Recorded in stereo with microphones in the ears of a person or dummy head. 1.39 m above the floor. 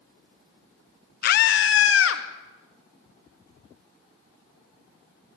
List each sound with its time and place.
1.2 s a scream: 55° left (ahead or behind), 1.2 m; by 2.2 s 80° left, 2.5 m